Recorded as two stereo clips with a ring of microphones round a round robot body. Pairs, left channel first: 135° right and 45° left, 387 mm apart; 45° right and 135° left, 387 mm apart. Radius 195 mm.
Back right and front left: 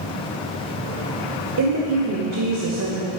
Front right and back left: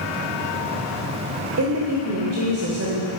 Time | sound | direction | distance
1.6 | a woman speaking | 90° left | 1.5 m